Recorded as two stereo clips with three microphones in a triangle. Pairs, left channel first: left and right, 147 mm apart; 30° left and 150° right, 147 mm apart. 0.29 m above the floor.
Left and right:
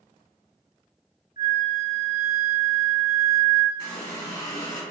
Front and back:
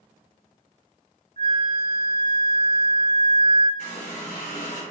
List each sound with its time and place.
1.4 s a flute: 75° left, 0.6 m
3.8 s a running tap: 30° left, 1.6 m